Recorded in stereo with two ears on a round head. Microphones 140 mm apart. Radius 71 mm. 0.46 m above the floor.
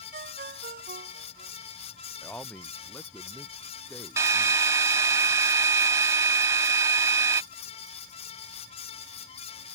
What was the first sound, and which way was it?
A ringtone, 55° right (ahead or behind).